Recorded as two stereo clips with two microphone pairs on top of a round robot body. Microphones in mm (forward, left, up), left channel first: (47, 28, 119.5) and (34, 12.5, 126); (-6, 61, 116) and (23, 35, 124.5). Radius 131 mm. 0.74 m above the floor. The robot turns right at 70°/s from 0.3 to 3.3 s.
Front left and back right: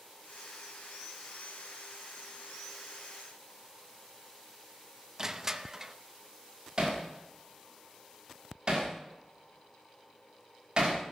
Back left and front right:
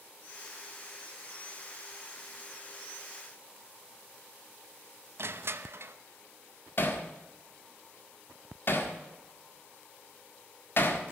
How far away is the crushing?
About 0.8 m.